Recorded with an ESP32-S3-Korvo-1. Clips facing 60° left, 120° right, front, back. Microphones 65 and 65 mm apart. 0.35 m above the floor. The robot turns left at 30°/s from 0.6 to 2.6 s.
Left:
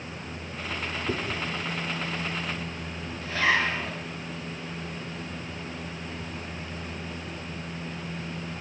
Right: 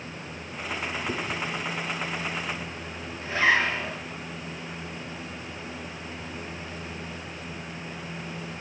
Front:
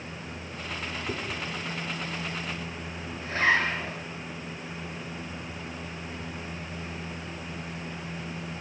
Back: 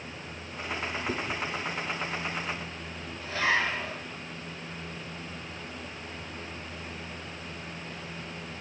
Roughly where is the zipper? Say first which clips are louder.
Right 2 dB, front 3 dB; ahead right.